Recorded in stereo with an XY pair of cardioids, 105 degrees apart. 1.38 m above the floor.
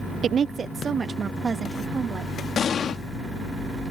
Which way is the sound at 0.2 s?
50° right.